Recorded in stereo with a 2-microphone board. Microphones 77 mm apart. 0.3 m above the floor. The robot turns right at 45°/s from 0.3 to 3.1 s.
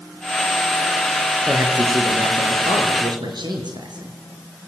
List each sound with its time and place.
1.4 s a man speaking: 155° right, 5.5 m; by 4.2 s 80° right, 5.5 m